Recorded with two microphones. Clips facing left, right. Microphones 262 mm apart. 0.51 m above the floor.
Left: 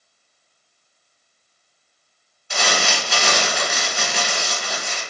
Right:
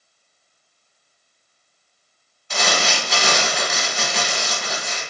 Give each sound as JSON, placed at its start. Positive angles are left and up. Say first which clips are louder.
{"t": 2.5, "sound": "crumpling", "louder": "right 1 dB", "side_deg": 10, "distance_m": 1.0}